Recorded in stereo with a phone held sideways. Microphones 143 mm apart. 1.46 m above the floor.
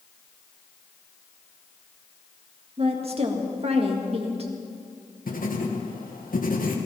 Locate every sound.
2.8 s a woman speaking: 45° right (ahead or behind), 2.0 m
5.3 s writing: 75° left (ahead or behind), 1.7 m